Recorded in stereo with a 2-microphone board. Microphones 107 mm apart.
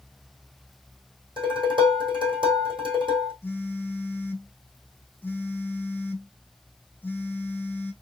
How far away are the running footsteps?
No running footsteps in this recording.